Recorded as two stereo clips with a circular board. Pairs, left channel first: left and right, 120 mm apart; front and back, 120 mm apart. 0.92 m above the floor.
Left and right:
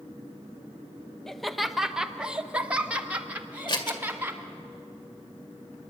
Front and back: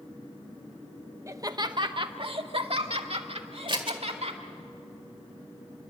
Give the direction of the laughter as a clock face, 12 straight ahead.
6 o'clock.